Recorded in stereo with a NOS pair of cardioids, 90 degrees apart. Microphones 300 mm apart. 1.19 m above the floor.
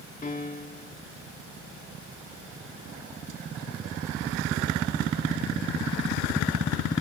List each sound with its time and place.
0.2 s a piano: 25° left, 2.5 m